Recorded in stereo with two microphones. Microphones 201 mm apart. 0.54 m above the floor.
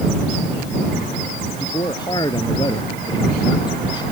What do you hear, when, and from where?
1.6 s a man speaking: 20° left (ahead or behind)